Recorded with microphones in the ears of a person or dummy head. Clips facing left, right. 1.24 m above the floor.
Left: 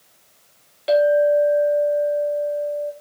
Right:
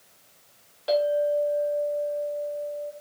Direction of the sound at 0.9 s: 30° left (ahead or behind).